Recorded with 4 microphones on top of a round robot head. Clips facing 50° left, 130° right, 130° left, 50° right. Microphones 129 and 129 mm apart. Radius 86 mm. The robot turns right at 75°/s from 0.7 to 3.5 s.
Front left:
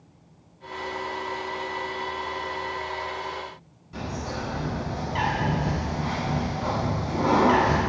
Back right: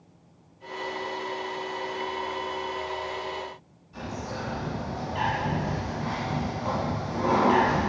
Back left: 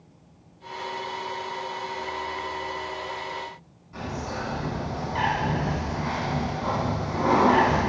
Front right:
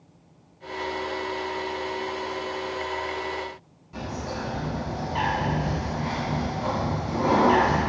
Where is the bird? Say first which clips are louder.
Front left 2 dB, even; 20° left, 5.5 m.